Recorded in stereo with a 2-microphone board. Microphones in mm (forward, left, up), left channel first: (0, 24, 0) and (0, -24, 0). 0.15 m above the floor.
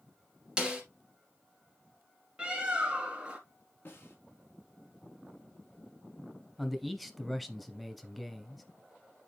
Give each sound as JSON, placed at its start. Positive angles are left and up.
{"t": 0.6, "sound": "a snare drum", "side_deg": -15, "distance_m": 2.5}
{"t": 2.4, "sound": "a bird", "side_deg": -20, "distance_m": 2.5}
{"t": 3.9, "sound": "a snare drum", "side_deg": 45, "distance_m": 4.0}
{"t": 6.6, "sound": "a man speaking", "side_deg": 0, "distance_m": 1.1}